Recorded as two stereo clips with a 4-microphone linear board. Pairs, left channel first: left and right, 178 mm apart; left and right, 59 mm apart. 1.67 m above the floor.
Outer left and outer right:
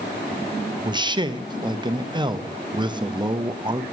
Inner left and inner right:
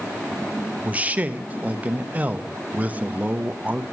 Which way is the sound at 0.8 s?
25° right (ahead or behind).